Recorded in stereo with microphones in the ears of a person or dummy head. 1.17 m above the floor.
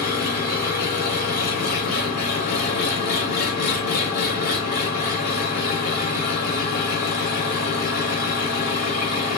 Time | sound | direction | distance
0.0 | an engine running | 50° left (ahead or behind) | 1.0 m